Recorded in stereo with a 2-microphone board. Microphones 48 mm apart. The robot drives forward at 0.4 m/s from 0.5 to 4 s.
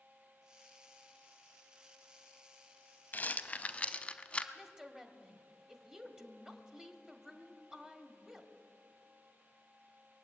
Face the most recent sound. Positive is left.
turn(degrees=-10)  # may be behind; listen again after turning